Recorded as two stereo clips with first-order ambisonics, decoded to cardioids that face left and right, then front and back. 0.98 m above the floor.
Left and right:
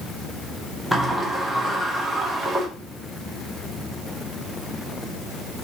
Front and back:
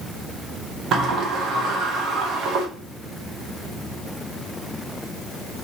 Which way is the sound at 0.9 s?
175° right.